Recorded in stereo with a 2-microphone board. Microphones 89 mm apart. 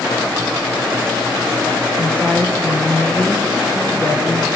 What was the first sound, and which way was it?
A woman speaking, 10° left (ahead or behind).